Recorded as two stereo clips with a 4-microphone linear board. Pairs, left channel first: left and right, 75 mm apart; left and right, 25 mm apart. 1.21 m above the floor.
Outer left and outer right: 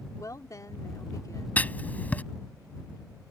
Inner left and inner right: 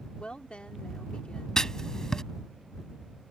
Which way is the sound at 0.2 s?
50° left (ahead or behind).